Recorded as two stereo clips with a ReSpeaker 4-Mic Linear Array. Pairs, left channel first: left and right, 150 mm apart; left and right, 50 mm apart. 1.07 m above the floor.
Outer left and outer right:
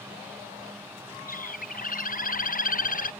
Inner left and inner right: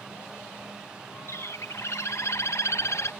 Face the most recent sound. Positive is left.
turn(degrees=65)  # may be behind; listen again after turning